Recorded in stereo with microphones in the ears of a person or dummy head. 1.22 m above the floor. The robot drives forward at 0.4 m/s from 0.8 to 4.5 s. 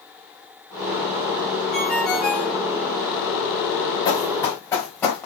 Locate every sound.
1.7 s a ringtone: centre (ahead or behind), 1.9 m
4.0 s running footsteps: 30° left (ahead or behind), 3.5 m; by 5.3 s 15° left (ahead or behind), 3 m